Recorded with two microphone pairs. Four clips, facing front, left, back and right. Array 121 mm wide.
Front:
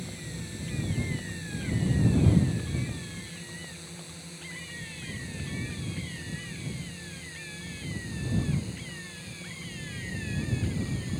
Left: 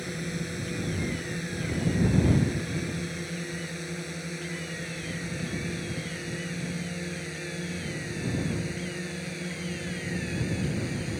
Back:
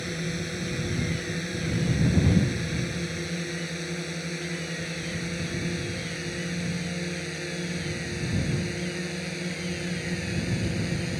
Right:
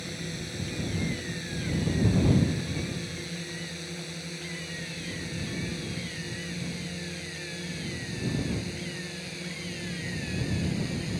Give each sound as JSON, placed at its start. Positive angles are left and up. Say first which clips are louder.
{"t": 0.0, "sound": "a drone", "louder": "left 4 dB, back 8 dB", "azimuth_deg": 160}